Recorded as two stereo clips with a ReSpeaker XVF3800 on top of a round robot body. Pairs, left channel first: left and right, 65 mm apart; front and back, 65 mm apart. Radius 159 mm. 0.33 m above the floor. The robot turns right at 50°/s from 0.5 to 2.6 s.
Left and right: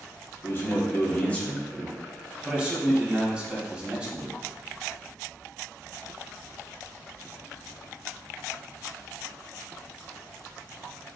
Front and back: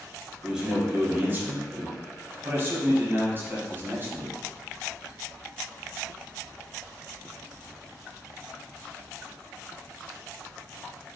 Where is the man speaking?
105° left, 1.4 m; by 4.4 s 150° right, 1.4 m.